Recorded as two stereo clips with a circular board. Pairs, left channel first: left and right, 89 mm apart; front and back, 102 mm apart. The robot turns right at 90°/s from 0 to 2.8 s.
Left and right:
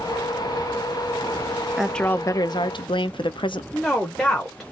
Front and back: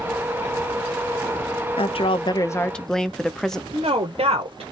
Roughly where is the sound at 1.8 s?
Ahead.